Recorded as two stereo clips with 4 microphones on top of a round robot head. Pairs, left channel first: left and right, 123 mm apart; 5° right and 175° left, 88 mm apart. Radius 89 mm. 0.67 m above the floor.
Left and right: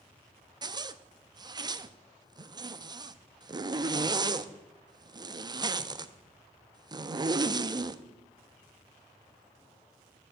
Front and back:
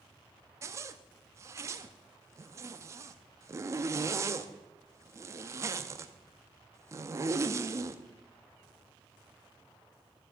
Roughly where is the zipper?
Behind right.